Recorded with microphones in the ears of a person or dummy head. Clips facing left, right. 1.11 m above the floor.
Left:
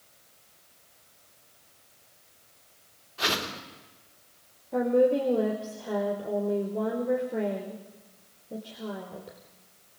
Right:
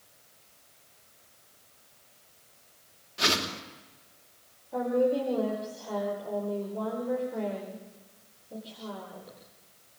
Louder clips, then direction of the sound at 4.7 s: Left 3 dB; 30° left (ahead or behind).